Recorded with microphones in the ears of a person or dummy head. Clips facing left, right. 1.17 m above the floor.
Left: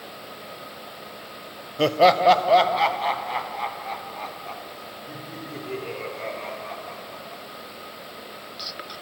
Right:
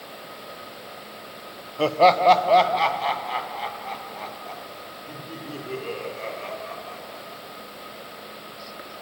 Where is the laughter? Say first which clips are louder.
Even; 15° left (ahead or behind), 0.6 m; by 7.4 s 15° right (ahead or behind), 4 m.